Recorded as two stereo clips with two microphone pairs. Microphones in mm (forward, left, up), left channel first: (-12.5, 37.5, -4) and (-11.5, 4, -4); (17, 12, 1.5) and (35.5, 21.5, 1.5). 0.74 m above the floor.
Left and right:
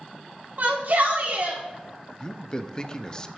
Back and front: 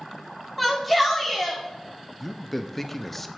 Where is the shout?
70° right, 2.0 m.